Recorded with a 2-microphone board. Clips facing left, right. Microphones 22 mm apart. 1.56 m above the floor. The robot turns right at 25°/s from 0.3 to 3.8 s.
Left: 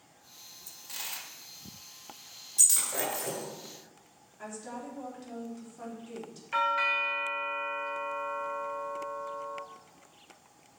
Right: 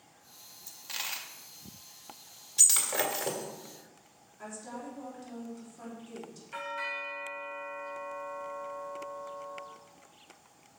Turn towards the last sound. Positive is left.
turn(degrees=40)  # may be behind; listen again after turning